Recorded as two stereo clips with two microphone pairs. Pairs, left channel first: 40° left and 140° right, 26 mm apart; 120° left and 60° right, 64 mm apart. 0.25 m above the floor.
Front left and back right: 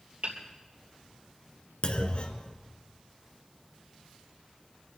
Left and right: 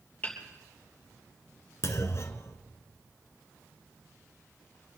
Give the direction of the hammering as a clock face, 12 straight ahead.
6 o'clock.